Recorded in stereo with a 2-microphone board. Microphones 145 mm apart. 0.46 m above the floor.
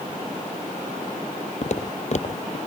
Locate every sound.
1.6 s footsteps: 55° left (ahead or behind), 0.9 m